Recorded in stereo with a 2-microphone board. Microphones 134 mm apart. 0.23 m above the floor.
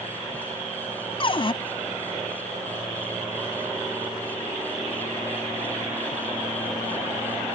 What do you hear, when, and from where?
1.2 s a cupboard door: 40° left (ahead or behind)